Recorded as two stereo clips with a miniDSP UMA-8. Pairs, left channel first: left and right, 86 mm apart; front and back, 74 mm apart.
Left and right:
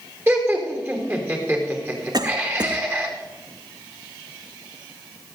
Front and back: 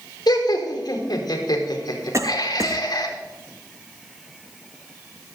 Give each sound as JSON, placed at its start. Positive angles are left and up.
{"t": 0.3, "sound": "laughter", "azimuth_deg": -30, "distance_m": 3.5}
{"t": 2.1, "sound": "a cough", "azimuth_deg": -130, "distance_m": 1.3}